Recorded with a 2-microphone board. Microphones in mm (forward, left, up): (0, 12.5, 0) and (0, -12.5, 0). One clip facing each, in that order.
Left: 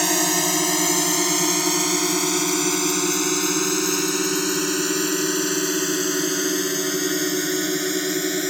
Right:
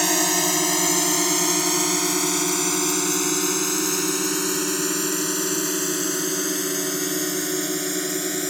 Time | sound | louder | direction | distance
0.0 | a drone | even | 5° left (ahead or behind) | ?